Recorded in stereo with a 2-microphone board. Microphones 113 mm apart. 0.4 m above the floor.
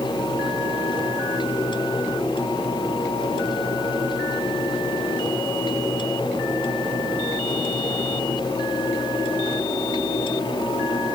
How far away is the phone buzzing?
No phone buzzing in this recording.